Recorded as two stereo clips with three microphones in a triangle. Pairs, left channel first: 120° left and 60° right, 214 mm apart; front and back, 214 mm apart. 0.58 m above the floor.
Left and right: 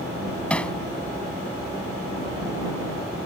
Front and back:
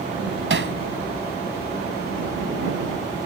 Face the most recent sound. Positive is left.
turn(degrees=-155)